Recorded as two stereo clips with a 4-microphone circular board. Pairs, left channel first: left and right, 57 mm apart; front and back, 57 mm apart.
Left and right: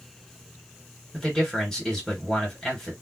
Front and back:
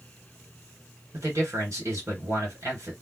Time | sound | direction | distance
1.1 | a man speaking | 170° left | 2.5 m